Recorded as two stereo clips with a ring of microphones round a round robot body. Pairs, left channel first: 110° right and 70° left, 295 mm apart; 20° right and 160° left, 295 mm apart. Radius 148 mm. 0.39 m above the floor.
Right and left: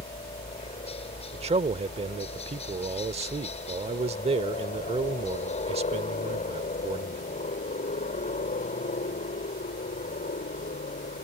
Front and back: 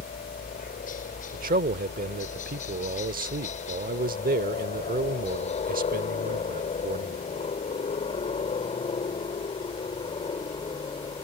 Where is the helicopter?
60° right; by 11.2 s 80° right.